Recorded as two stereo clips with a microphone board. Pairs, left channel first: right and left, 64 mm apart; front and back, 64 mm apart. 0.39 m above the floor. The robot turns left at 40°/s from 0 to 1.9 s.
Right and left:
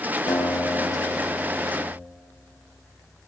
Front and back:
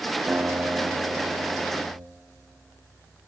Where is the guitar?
120° right, 1.8 m; by 2.0 s 175° left, 1.8 m.